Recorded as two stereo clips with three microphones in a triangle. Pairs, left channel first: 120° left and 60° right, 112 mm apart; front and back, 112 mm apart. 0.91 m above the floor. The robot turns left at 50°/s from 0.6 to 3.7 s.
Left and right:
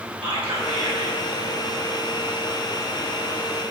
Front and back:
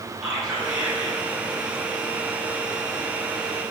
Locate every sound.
0.2 s whispering: 95° right, 1.8 m; by 1.2 s 125° right, 1.8 m